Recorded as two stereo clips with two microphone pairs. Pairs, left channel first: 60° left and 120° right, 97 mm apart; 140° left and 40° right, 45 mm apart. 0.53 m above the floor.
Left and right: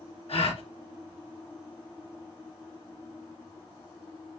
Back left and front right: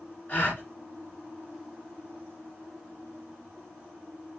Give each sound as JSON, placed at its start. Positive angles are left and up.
{"t": 0.3, "sound": "a gasp", "azimuth_deg": 75, "distance_m": 1.8}